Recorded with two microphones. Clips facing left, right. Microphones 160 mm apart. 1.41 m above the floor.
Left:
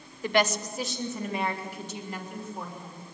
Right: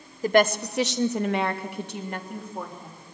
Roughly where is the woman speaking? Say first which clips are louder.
Right 5 dB; right.